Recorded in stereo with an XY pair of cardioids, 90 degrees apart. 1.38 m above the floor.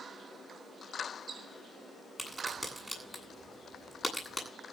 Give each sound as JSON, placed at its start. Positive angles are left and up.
{"t": 2.2, "sound": "a crack", "azimuth_deg": 5, "distance_m": 9.0}